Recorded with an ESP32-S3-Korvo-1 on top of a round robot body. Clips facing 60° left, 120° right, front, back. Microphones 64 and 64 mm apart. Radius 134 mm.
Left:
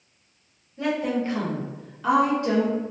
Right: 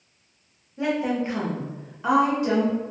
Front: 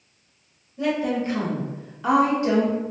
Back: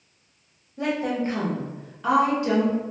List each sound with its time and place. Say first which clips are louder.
0.8 s a woman speaking: right 1 dB, front 2 dB; 170° left, 1.7 m; by 2.8 s 40° right, 1.6 m